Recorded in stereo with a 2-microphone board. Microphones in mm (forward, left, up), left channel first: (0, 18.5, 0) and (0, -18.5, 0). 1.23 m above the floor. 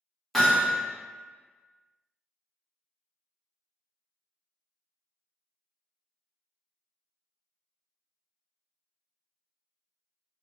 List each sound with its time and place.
0.3 s hammering: 5° left (ahead or behind), 1.2 m